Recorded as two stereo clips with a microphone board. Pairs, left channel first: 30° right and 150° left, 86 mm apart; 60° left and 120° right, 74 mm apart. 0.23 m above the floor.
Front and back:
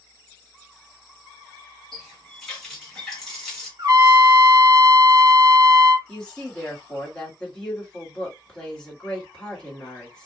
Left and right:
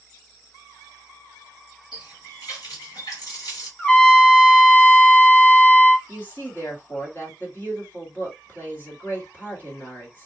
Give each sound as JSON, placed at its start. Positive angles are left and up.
{"t": 1.9, "sound": "a running tap", "azimuth_deg": 60, "distance_m": 1.7}
{"t": 3.8, "sound": "a trumpet", "azimuth_deg": 130, "distance_m": 0.8}
{"t": 6.1, "sound": "a woman speaking", "azimuth_deg": 40, "distance_m": 1.5}